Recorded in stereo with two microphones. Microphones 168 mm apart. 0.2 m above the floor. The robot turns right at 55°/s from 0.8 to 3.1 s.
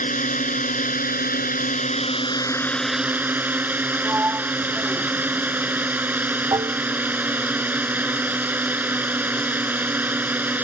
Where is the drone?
65° left; by 10.7 s 170° right.